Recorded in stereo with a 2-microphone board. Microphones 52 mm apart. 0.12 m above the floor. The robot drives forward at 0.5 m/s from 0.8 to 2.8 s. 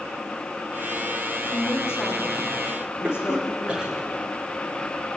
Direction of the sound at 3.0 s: 20° right (ahead or behind).